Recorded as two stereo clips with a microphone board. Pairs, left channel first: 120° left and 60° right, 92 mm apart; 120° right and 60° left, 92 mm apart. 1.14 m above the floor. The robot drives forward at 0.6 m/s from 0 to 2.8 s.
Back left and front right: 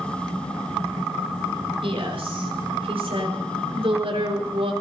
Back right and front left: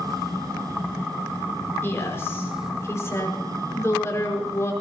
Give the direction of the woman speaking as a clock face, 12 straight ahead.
2 o'clock.